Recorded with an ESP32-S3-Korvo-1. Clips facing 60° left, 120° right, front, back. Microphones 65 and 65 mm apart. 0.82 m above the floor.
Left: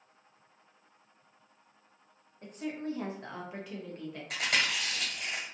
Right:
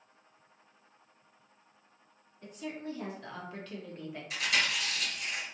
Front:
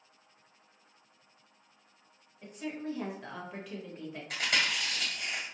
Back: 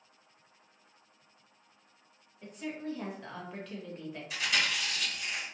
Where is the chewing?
30° left, 1.4 m.